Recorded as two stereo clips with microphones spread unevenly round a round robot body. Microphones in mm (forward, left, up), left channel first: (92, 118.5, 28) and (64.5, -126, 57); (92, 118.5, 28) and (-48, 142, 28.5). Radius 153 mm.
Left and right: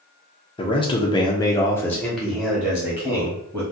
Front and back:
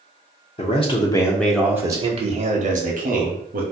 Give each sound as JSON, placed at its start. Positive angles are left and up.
{"t": 0.6, "sound": "a man speaking", "azimuth_deg": 25, "distance_m": 0.7}